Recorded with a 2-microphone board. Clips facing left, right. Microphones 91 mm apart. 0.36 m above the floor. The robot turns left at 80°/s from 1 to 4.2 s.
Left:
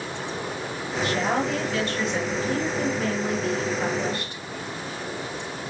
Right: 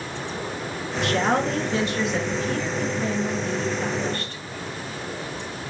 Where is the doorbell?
I don't hear a doorbell.